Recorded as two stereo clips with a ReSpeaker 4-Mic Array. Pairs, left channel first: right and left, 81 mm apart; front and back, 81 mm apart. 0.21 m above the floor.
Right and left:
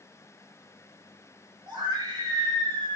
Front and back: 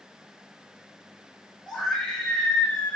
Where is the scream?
80° left, 5.5 m; by 3.0 s 70° left, 5 m.